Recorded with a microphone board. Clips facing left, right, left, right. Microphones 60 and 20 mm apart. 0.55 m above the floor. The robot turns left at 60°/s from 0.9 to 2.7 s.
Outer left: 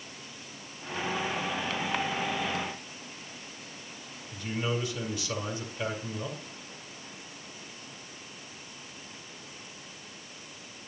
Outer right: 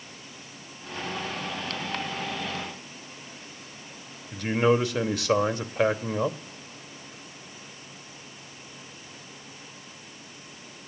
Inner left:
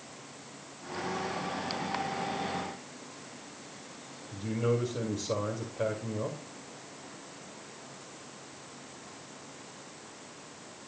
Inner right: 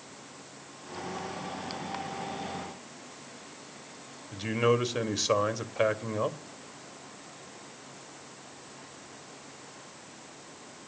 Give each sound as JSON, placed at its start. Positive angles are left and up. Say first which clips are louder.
{"t": 4.3, "sound": "a man speaking", "louder": "outer right 10 dB, inner right 4 dB", "side_deg": -65, "distance_m": 2.0}